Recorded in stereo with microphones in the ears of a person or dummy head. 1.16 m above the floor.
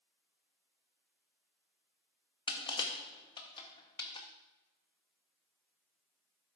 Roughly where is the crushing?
Left.